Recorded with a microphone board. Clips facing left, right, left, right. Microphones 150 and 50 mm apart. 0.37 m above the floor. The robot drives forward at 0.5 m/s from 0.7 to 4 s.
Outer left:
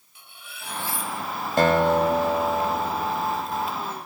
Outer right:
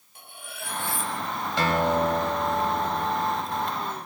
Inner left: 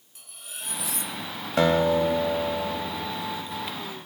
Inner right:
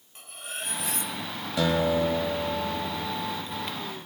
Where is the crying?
No crying in this recording.